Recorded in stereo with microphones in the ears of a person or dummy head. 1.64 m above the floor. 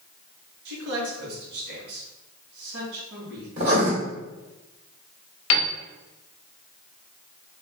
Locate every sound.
0.7 s a man speaking: 60° right (ahead or behind), 2 m
3.6 s writing: 45° right (ahead or behind), 1.7 m
5.5 s a piano: 75° left (ahead or behind), 0.8 m